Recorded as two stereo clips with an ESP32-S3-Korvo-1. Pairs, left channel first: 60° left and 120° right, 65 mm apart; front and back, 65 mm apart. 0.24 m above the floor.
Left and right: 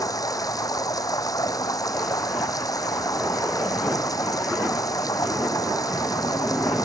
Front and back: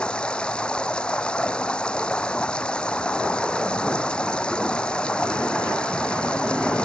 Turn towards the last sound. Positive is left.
turn(degrees=75)